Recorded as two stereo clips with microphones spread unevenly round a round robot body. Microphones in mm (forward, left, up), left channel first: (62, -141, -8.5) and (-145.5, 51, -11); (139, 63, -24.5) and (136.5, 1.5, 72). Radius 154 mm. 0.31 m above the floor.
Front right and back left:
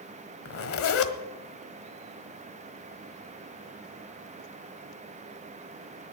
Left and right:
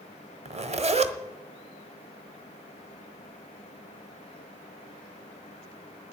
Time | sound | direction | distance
0.5 | a zipper | 55° right | 1.4 m